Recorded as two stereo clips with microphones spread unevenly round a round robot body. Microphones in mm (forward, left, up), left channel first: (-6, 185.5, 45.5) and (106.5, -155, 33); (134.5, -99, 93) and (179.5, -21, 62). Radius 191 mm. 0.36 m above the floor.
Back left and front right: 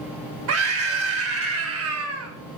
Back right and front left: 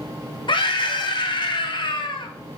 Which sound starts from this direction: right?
A scream, at 0.5 s.